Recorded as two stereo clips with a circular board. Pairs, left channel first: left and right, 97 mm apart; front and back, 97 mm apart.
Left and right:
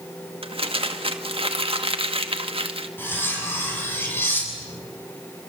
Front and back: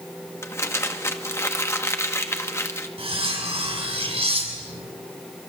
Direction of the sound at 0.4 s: 65° right.